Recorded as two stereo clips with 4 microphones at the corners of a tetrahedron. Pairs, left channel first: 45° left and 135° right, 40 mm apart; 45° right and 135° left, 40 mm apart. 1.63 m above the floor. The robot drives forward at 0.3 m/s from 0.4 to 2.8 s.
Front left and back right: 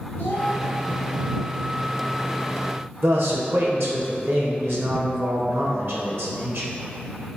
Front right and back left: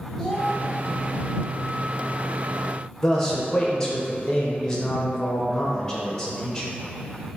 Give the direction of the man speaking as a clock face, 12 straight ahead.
4 o'clock.